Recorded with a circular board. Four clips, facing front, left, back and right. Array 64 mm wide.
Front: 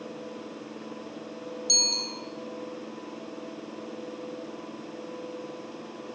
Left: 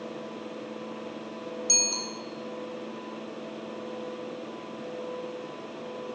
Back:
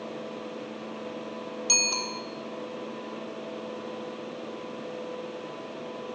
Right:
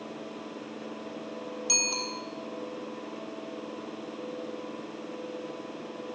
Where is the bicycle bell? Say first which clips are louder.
Right 1 dB, back 3 dB; 165° right, 3 m.